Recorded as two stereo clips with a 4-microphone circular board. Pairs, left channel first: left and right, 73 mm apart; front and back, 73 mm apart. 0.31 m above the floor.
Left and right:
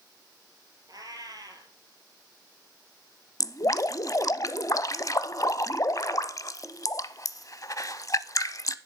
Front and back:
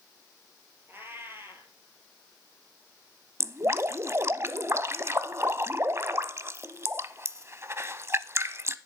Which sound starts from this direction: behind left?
Dripping, at 3.4 s.